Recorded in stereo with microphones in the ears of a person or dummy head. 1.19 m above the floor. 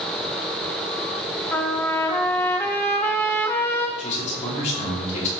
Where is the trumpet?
15° left (ahead or behind), 0.8 m.